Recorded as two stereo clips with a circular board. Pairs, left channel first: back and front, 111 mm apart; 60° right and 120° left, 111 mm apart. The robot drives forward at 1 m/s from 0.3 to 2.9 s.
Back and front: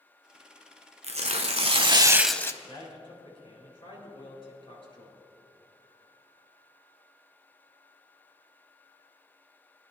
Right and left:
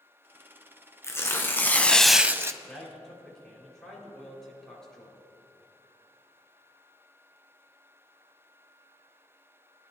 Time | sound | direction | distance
1.0 | tearing paper | 5° left | 1.3 m
2.6 | a man speaking | 145° right | 4 m